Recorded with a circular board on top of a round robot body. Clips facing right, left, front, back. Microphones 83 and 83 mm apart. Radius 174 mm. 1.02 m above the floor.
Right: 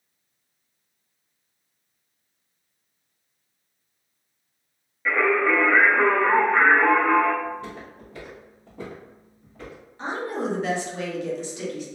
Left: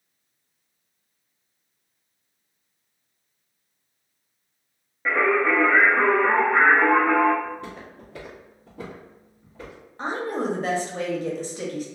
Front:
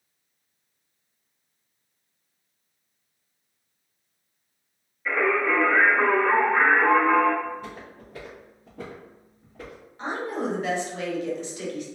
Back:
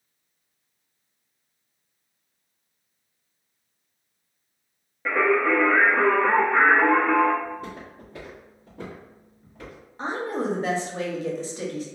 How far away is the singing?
About 0.6 m.